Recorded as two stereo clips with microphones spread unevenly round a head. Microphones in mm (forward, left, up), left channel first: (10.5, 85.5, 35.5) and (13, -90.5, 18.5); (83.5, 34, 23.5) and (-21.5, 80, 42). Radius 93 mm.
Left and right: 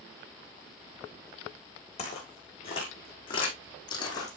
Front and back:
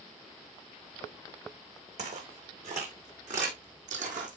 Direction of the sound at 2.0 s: 145° left.